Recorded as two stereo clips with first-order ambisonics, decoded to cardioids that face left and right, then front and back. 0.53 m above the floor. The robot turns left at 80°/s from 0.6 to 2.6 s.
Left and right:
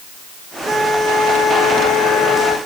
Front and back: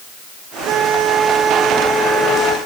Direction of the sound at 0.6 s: 170° right.